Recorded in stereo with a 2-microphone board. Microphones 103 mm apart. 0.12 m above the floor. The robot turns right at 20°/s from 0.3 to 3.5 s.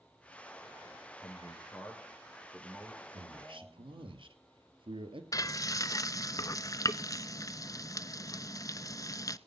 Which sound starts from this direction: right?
A man speaking, at 3.1 s.